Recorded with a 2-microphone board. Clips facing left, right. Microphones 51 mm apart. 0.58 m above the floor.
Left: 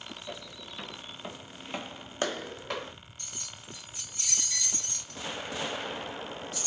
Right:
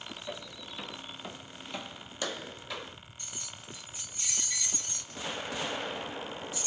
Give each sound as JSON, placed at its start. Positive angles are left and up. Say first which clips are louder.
{"t": 0.3, "sound": "footsteps", "louder": "right 1 dB", "side_deg": -10, "distance_m": 1.2}
{"t": 3.2, "sound": "keys jangling", "louder": "right 1 dB", "side_deg": -15, "distance_m": 1.8}